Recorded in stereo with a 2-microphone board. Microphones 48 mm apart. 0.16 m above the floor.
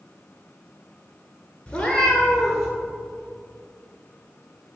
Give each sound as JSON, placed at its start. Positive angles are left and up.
{"t": 1.7, "sound": "a cat meowing", "side_deg": 25, "distance_m": 0.7}